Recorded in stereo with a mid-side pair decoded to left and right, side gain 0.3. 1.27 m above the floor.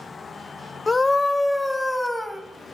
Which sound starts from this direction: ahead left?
A scream, at 0.9 s.